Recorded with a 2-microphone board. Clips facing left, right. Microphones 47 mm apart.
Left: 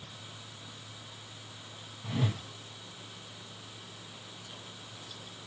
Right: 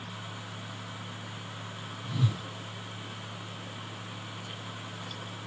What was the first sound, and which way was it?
A whoosh, 40° left (ahead or behind).